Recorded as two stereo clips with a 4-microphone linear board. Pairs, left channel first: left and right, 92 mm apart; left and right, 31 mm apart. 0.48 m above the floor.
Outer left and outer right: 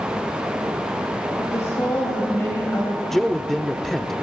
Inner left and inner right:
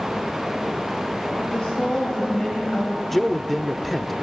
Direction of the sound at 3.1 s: 5° left (ahead or behind).